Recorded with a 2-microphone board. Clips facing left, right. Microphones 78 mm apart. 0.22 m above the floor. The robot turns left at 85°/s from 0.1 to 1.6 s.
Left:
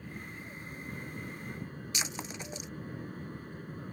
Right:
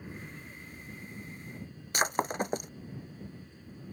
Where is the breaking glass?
50° right (ahead or behind).